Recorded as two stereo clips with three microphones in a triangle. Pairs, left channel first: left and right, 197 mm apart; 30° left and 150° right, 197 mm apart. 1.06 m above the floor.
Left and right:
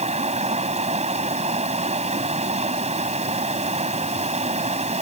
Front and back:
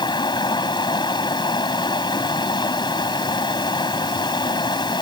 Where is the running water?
35° right.